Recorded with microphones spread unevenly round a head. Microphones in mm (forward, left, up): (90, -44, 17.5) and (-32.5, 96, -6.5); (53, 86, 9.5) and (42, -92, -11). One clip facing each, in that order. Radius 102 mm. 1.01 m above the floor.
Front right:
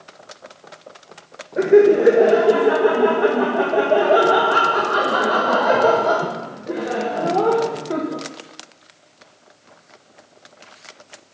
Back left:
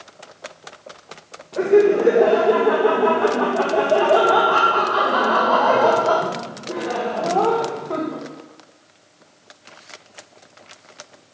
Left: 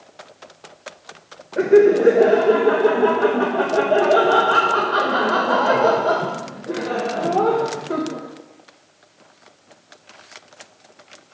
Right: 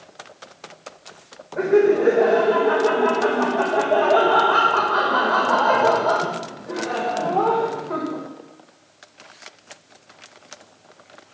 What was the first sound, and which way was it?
Laughter, 25° left.